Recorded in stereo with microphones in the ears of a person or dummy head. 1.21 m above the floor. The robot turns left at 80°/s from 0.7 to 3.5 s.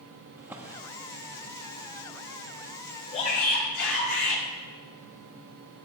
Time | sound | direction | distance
0.4 | a drawer | 10° right (ahead or behind) | 1.0 m
3.1 | a shout | 150° left | 5.5 m